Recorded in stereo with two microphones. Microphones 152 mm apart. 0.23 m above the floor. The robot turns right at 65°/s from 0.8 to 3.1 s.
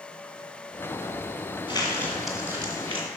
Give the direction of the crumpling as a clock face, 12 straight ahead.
7 o'clock.